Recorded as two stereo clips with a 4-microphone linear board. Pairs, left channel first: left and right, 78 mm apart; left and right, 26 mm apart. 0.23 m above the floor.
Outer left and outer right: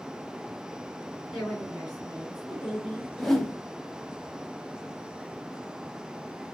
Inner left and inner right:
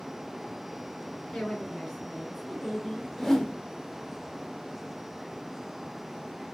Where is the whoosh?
5° left (ahead or behind), 0.6 m.